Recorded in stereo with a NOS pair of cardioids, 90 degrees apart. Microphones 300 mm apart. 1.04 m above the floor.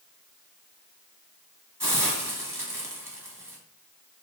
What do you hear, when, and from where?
1.8 s a hiss: 10° right, 1.3 m